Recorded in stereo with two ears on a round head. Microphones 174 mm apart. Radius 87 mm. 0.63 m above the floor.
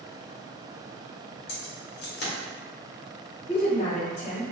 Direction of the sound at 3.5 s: 30° left (ahead or behind).